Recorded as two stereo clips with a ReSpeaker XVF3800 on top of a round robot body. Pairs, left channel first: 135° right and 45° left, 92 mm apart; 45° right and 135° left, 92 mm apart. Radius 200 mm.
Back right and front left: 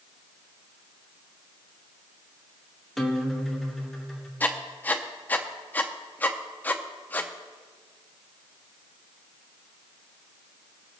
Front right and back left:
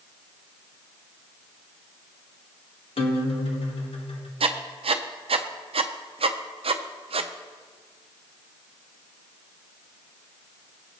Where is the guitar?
45° right, 1.6 m.